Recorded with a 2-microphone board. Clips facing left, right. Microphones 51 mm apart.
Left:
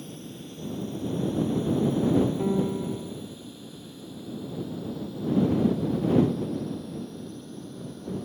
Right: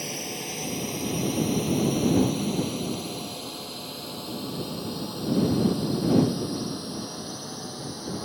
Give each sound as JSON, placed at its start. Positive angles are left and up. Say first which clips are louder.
{"t": 0.0, "sound": "a drone", "louder": "right 6 dB", "side_deg": -75}
{"t": 2.4, "sound": "a piano", "louder": "left 2 dB", "side_deg": 55}